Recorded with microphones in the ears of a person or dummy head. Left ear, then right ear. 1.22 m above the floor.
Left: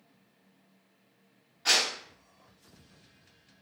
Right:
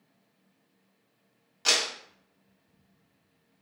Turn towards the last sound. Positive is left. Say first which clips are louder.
# even
turn(degrees=-75)  # may be behind; listen again after turning